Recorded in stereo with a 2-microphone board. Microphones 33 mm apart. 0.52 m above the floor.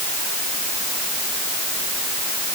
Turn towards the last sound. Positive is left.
No sound to turn to.